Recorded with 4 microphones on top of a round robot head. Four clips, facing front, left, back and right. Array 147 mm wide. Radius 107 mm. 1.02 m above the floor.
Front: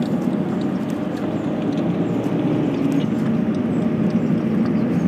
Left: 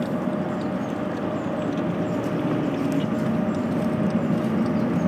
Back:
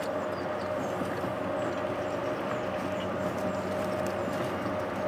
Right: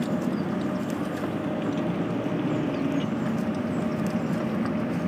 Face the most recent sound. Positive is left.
turn(degrees=15)